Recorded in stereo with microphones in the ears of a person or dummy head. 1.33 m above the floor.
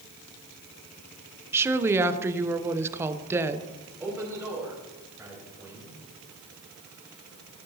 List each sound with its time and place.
1.5 s a woman speaking: 15° right (ahead or behind), 0.6 m
4.0 s a man speaking: 10° right (ahead or behind), 3 m